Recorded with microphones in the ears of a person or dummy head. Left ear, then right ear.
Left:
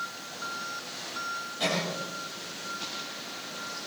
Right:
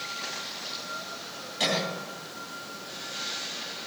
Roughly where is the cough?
Right.